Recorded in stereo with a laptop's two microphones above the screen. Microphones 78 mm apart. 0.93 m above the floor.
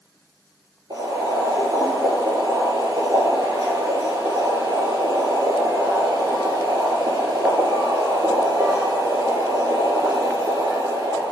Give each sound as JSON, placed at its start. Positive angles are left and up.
{"t": 0.9, "sound": "boiling", "side_deg": -85, "distance_m": 5.5}